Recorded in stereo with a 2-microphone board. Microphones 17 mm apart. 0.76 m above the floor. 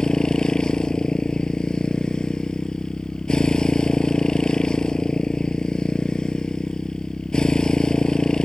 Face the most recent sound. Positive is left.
turn(degrees=60)  # may be behind; listen again after turning